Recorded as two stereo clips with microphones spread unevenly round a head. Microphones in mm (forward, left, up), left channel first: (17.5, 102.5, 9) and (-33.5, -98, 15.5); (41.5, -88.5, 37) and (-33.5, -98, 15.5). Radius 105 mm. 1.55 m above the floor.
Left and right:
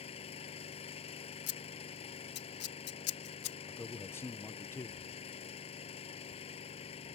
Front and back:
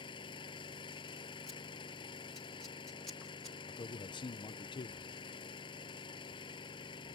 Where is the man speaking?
5° right.